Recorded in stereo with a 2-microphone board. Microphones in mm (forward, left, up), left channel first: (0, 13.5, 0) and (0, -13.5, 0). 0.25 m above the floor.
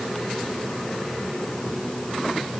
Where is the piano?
I don't hear a piano.